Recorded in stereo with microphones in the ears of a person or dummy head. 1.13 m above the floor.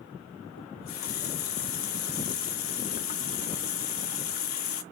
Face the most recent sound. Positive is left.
turn(degrees=45)  # may be behind; listen again after turning